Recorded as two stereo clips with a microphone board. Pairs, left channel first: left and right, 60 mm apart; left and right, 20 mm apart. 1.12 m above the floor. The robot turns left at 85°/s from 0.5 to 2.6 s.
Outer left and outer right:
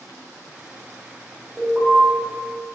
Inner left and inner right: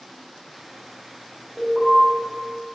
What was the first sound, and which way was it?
An alarm, straight behind.